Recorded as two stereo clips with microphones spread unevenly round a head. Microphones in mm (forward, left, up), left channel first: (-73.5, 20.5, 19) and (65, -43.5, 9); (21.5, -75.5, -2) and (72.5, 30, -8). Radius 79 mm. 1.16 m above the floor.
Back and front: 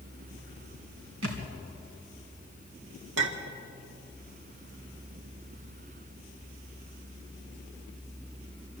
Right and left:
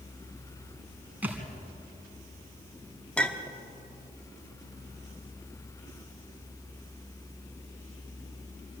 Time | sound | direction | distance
1.2 | a thud | 15° right | 3 m
3.2 | a clink | 35° right | 1.6 m